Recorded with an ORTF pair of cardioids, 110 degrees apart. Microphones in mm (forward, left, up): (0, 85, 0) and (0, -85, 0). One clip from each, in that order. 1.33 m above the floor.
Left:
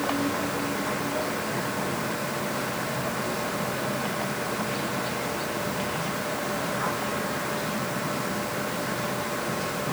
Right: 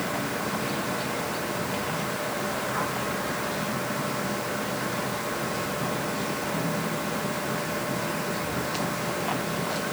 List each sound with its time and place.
Only background noise.